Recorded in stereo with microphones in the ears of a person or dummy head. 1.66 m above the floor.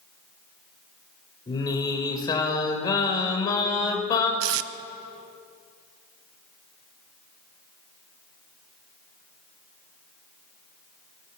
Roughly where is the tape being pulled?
Right.